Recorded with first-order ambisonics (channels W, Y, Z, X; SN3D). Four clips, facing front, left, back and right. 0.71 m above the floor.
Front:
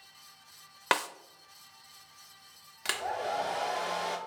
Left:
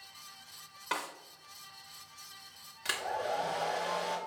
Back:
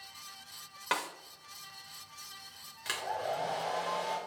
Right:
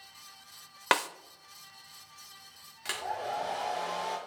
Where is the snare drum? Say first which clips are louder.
Right 9 dB, front 5 dB; 55° right, 0.6 m.